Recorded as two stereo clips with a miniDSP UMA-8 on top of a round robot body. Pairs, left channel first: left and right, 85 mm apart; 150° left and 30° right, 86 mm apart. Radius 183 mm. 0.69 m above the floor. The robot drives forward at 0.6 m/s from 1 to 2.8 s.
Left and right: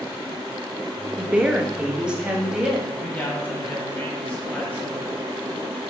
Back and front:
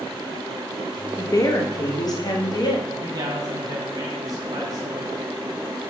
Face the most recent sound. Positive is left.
turn(degrees=15)